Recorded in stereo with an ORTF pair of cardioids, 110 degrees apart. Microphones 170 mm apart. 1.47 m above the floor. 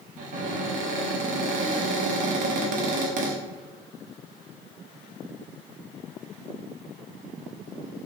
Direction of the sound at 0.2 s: 50° right.